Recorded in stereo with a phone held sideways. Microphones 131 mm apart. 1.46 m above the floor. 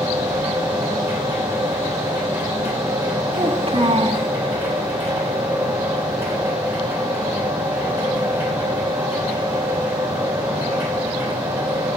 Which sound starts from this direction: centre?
A machine running, at 0.0 s.